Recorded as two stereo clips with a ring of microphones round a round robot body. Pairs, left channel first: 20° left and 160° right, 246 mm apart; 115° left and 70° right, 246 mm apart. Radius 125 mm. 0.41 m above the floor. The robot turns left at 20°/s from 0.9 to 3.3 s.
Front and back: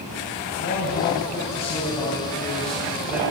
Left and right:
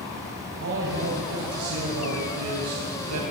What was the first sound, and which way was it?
A man speaking, 30° right.